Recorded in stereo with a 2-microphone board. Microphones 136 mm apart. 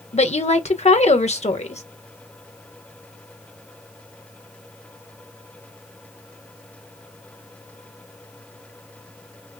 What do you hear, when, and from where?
0.1 s a woman speaking: 60° left (ahead or behind), 0.9 m